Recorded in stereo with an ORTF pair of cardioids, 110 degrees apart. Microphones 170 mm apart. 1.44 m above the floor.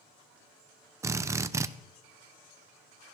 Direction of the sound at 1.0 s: 15° right.